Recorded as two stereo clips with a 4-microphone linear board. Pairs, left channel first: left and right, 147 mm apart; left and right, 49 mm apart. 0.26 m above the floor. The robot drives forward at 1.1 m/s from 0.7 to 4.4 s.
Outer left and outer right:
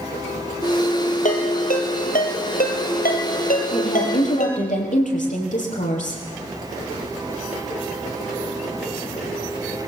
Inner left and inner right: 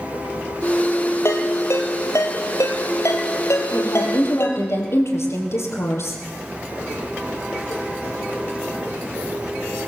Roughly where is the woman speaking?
Left.